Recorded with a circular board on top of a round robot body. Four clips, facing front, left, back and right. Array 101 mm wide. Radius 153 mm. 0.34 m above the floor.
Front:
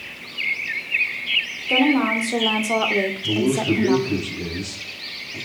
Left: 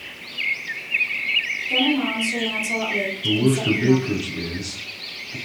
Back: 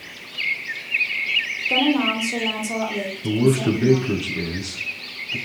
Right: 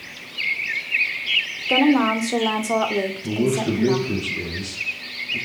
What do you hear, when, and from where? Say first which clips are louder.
1.7 s a woman speaking: right 5 dB, front 2 dB; 90° right, 2 m; by 4.1 s 10° right, 2 m
3.2 s a man speaking: left 4 dB, back 4 dB; 160° left, 5 m